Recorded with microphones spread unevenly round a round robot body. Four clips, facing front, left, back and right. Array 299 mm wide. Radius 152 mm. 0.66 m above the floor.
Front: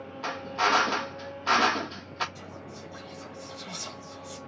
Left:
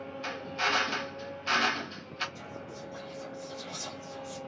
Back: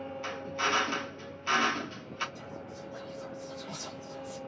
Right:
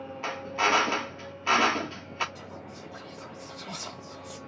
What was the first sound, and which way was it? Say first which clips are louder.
A drill: right 5 dB, front 7 dB; 45° right.